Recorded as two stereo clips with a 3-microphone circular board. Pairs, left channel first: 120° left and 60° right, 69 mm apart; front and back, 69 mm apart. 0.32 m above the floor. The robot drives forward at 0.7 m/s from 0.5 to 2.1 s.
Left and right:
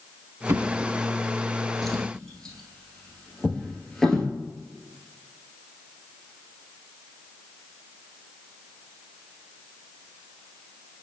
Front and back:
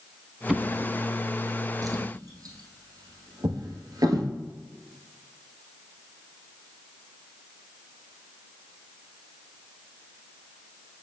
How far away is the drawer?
About 0.5 m.